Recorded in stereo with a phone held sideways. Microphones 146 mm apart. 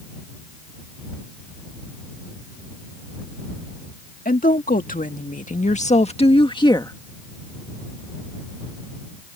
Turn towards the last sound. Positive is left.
turn(degrees=25)  # may be behind; listen again after turning